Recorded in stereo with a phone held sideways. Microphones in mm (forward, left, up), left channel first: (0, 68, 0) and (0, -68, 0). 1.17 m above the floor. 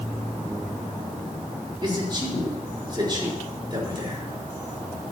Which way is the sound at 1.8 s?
35° right (ahead or behind).